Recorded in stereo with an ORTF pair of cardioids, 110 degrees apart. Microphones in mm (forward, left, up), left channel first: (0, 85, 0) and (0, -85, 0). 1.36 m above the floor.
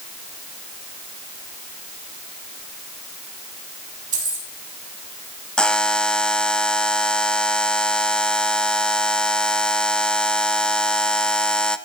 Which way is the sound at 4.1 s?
50° right.